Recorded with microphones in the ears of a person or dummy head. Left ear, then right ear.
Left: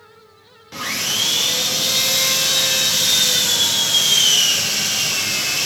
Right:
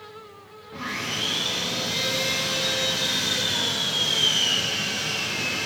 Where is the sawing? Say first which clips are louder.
Left 7 dB; 80° left, 0.6 m.